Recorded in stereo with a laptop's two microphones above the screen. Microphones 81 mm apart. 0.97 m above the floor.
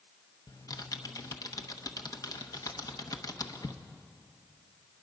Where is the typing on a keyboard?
50° left (ahead or behind), 1.0 m.